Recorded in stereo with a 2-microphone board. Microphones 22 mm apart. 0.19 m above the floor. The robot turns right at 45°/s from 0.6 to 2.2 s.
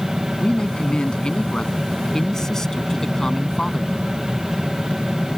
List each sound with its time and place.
0.4 s a man speaking: 65° left; by 4.1 s 140° left